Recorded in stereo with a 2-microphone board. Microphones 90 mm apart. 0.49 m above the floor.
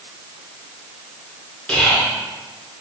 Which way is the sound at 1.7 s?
10° left (ahead or behind).